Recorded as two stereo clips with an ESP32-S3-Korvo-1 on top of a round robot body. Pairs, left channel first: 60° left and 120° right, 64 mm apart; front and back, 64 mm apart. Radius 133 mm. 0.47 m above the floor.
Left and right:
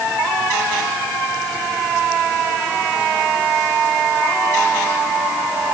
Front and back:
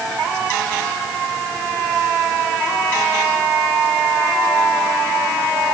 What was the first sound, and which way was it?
Only background noise.